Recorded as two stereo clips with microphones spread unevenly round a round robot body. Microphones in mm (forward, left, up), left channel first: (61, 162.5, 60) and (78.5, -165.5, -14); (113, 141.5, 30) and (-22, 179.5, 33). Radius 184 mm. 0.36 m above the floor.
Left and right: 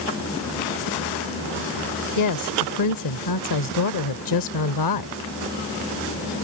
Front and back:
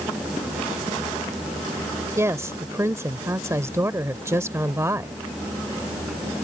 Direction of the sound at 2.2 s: 100° left.